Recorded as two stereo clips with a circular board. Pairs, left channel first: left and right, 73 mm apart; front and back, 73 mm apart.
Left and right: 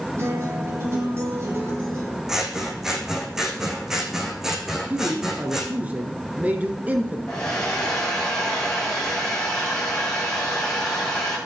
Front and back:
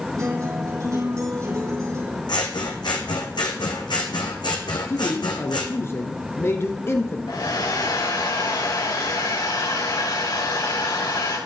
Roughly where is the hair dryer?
Ahead.